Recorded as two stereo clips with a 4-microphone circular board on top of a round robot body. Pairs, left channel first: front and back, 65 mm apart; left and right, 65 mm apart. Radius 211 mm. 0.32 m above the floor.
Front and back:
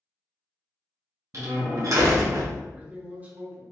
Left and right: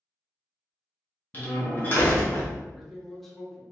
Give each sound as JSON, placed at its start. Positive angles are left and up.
{"t": 1.3, "sound": "a door slam", "azimuth_deg": 150, "distance_m": 1.6}
{"t": 2.7, "sound": "a man speaking", "azimuth_deg": 175, "distance_m": 1.6}